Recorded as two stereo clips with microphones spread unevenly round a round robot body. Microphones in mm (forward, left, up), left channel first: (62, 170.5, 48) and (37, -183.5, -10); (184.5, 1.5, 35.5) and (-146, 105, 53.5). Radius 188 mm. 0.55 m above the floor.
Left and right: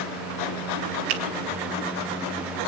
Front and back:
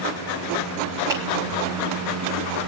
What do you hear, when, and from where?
1.1 s a finger snap: 115° right, 2 m